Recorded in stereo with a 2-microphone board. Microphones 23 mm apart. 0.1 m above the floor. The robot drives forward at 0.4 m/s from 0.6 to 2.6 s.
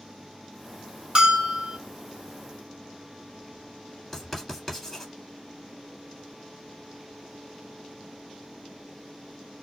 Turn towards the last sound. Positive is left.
turn(degrees=5)  # may be behind; listen again after turning